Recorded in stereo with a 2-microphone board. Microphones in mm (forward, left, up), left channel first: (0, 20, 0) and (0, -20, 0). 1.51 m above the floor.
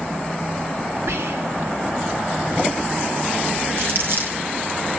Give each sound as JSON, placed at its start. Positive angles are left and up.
{"t": 1.1, "sound": "whispering", "side_deg": -85, "distance_m": 2.5}
{"t": 3.8, "sound": "crumpling", "side_deg": -60, "distance_m": 4.5}